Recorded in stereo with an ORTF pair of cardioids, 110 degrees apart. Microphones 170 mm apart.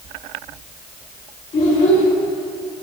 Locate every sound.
1.5 s a child speaking: 50° left, 4.5 m